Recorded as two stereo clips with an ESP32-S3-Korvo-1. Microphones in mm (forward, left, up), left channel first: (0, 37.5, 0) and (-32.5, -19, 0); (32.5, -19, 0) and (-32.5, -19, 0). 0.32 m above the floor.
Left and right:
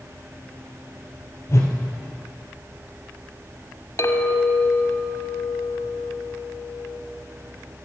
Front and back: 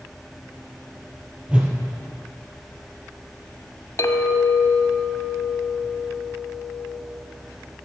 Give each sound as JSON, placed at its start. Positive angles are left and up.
{"t": 1.5, "sound": "a whoosh", "azimuth_deg": 105, "distance_m": 2.5}
{"t": 4.0, "sound": "a clink", "azimuth_deg": 35, "distance_m": 1.3}